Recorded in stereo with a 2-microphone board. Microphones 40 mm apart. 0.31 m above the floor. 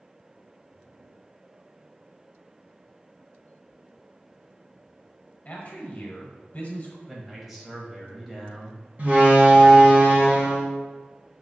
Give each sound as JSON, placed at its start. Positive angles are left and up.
{"t": 5.5, "sound": "a man speaking", "side_deg": 40, "distance_m": 1.3}
{"t": 7.1, "sound": "a man speaking", "side_deg": -5, "distance_m": 1.3}
{"t": 9.0, "sound": "a door slam", "side_deg": -40, "distance_m": 2.0}